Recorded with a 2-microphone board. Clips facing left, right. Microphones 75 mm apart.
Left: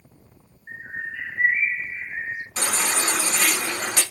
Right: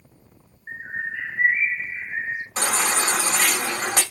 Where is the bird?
35° right (ahead or behind), 3 m.